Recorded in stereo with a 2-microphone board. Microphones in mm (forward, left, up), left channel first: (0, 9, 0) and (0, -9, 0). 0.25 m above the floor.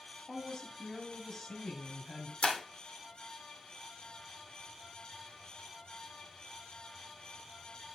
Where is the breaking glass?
80° left, 2.5 m.